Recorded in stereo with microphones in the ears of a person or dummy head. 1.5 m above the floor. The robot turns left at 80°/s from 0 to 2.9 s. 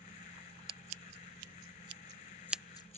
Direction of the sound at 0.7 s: 30° right (ahead or behind).